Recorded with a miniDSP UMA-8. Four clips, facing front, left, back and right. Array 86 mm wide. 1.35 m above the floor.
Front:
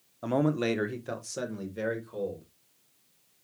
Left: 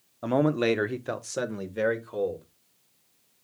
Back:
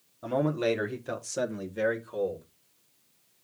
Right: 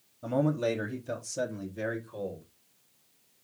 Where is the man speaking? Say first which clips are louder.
Left 4 dB, even; 70° left, 1.1 m; by 2.5 s 110° left, 2.5 m.